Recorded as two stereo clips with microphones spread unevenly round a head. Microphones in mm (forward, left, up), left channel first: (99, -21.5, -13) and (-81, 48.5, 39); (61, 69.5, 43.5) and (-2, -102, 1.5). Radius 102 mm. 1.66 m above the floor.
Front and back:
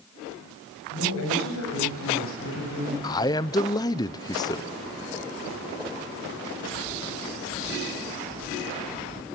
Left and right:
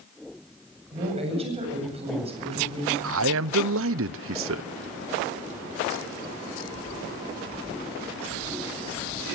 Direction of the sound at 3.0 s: 100° right.